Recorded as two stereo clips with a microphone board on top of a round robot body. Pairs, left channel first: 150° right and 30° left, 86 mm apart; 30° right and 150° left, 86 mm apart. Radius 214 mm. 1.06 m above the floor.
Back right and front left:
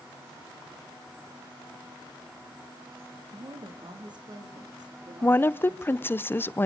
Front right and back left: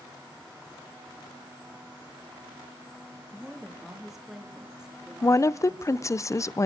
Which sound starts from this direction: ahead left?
A woman speaking, at 3.3 s.